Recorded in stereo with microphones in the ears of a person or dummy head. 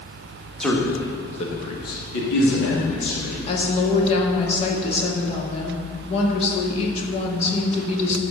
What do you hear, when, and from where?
0.6 s a man speaking: 5° left (ahead or behind), 1.9 m; by 3.4 s 85° left, 3.5 m
3.5 s a woman speaking: 35° left (ahead or behind), 1.8 m